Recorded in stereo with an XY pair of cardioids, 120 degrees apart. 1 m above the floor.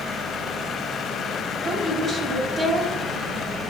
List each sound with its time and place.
1.6 s a woman speaking: 35° right, 2 m